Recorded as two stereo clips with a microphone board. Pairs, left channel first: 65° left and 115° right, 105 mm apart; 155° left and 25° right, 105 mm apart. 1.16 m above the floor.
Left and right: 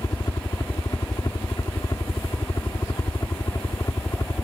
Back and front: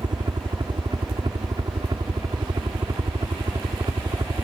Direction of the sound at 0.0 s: 20° left.